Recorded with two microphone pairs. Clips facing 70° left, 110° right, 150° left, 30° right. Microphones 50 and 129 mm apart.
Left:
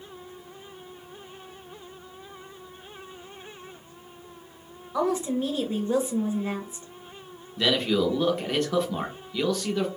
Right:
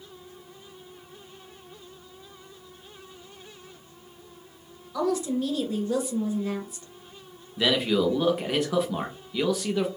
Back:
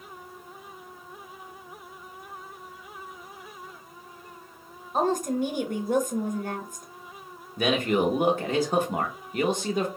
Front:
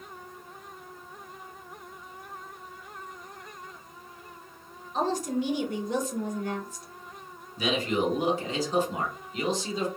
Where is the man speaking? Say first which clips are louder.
Even, back 3 dB; 170° left, 1.0 m.